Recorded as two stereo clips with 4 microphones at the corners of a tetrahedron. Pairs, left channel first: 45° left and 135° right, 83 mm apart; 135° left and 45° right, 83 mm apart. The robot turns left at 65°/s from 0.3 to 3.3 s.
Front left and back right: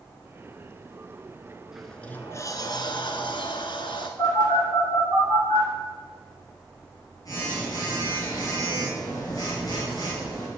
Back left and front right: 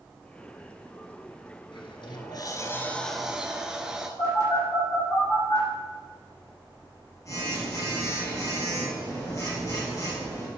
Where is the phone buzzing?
85° left, 3.5 m.